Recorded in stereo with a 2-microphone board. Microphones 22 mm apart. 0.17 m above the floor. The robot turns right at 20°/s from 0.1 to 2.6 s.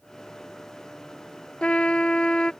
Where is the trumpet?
65° left (ahead or behind); by 2.5 s 50° left (ahead or behind).